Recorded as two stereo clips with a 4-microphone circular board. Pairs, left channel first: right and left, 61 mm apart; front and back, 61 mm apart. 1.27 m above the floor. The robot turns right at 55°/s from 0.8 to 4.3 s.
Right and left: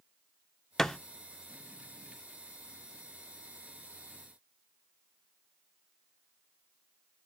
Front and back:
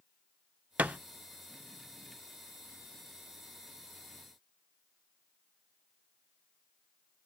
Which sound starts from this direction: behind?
A thud, at 0.8 s.